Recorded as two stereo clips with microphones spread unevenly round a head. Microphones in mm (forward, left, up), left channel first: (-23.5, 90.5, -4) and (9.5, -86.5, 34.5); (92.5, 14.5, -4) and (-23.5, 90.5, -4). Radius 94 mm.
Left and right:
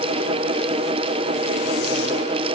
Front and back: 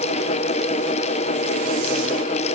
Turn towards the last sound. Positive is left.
No sound to turn to.